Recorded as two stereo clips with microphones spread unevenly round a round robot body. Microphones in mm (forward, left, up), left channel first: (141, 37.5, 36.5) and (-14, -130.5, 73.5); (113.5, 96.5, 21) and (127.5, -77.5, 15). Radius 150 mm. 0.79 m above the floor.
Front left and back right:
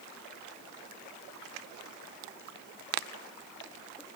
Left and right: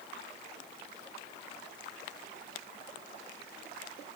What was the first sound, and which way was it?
Only background noise.